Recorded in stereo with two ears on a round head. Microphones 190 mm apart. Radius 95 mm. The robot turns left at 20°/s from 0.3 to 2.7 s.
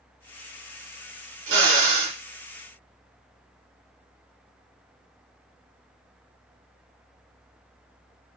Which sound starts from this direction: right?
A drill, at 1.5 s.